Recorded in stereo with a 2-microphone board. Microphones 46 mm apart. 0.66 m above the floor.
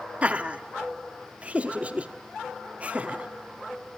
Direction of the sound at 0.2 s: 30° right (ahead or behind).